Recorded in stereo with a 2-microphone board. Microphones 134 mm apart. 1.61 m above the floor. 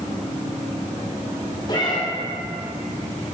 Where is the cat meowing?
35° left (ahead or behind), 2.0 m.